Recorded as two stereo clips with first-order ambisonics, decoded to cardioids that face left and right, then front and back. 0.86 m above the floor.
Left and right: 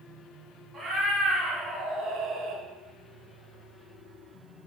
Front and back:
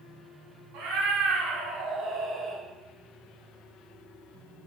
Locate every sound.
0.7 s a cat meowing: 165° right, 1.9 m; by 2.6 s 70° right, 0.8 m